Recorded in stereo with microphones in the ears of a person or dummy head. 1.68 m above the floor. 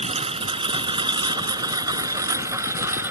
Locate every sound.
0.0 s a lawn mower: 30° right (ahead or behind); by 3.1 s 10° right (ahead or behind)